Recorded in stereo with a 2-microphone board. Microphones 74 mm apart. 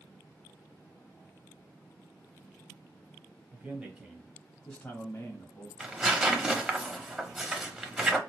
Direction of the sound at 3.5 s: 20° right (ahead or behind).